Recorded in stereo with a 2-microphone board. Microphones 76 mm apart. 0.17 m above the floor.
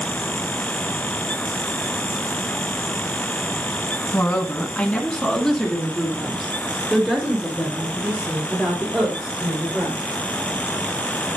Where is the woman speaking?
30° left (ahead or behind), 1.7 m; by 10.2 s 15° right (ahead or behind), 6 m.